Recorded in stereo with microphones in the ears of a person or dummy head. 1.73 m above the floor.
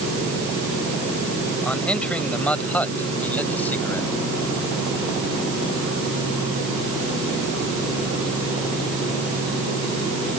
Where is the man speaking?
5° left (ahead or behind); by 4.1 s 10° left (ahead or behind).